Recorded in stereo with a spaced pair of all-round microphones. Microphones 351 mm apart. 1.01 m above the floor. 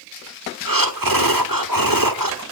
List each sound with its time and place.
0.7 s breathing: 70° right (ahead or behind), 1.5 m